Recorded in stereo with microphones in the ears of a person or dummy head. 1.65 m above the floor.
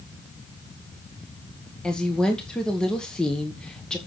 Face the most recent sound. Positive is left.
turn(degrees=0)  # may be behind; listen again after turning